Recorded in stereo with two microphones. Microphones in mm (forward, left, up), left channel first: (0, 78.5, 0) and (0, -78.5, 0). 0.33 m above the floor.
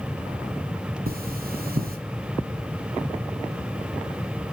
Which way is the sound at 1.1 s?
70° right (ahead or behind).